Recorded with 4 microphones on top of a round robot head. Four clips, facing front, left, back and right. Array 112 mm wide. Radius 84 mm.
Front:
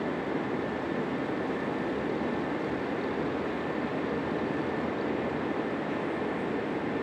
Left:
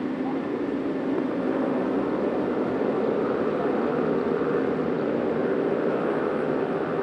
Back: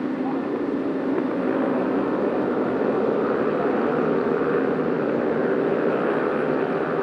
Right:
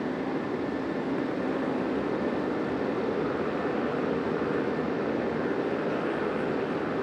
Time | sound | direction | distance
0.0 | a motorcycle | 155° left | ?